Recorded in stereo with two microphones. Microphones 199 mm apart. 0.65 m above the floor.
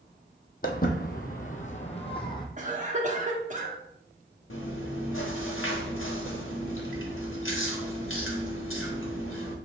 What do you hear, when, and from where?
0.6 s footsteps: 45° left (ahead or behind), 1.0 m; by 2.5 s 20° left (ahead or behind), 1.0 m
2.6 s a cough: 40° right (ahead or behind), 1.1 m
4.5 s chewing: 90° left, 0.9 m